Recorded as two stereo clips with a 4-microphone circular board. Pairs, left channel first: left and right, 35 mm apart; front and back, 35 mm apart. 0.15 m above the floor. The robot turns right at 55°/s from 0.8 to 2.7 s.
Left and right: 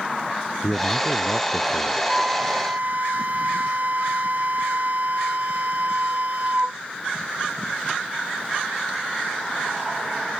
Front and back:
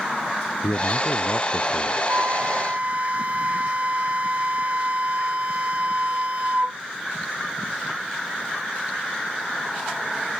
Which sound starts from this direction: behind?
A flute, at 2.1 s.